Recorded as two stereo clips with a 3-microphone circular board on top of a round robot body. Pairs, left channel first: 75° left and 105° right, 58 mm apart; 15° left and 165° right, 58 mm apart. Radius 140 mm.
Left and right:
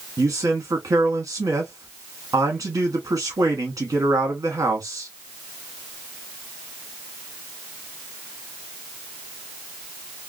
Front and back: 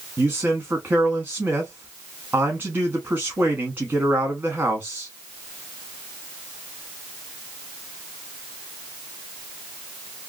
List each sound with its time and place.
0.2 s a man speaking: 120° right, 1.1 m